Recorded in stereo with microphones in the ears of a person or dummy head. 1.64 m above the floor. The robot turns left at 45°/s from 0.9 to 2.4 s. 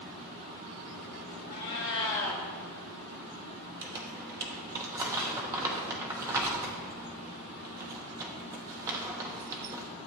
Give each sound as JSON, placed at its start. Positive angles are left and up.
{"t": 1.5, "sound": "a cat meowing", "azimuth_deg": 65, "distance_m": 1.5}
{"t": 3.8, "sound": "crumpling", "side_deg": -15, "distance_m": 1.0}